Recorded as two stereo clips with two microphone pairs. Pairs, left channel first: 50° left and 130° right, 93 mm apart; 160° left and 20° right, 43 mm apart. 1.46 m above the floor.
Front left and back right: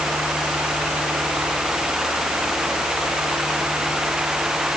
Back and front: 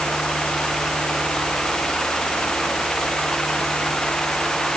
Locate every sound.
Only background noise.